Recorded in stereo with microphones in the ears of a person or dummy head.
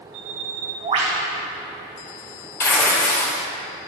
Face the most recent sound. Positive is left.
turn(degrees=15)  # may be behind; listen again after turning